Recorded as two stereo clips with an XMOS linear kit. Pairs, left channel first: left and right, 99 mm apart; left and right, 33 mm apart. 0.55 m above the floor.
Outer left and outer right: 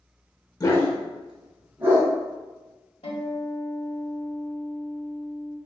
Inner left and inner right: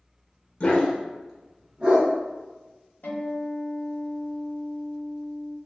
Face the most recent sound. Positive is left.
turn(degrees=75)  # may be behind; listen again after turning